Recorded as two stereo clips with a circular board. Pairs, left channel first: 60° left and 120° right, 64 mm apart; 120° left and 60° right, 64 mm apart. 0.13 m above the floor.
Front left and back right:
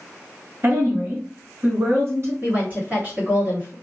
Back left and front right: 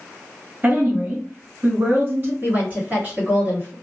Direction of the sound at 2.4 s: 95° right.